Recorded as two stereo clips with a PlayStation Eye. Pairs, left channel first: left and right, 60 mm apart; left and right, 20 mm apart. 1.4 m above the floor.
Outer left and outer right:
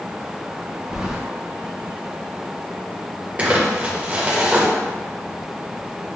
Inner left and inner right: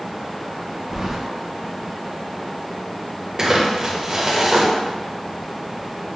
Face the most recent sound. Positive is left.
turn(degrees=-25)  # may be behind; listen again after turning